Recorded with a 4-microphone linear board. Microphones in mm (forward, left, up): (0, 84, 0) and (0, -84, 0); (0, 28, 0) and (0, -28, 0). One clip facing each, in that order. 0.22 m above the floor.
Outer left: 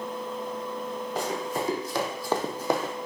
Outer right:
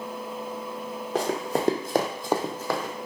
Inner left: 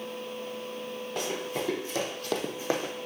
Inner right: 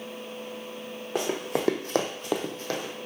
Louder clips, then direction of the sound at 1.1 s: Outer right 5 dB, inner right 5 dB; 80° right.